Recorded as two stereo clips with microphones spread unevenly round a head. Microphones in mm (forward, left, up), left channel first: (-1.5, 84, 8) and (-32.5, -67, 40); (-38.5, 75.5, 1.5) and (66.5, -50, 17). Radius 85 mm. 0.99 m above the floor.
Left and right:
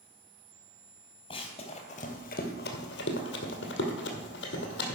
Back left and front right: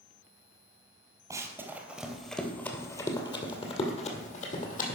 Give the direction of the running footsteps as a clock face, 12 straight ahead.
12 o'clock.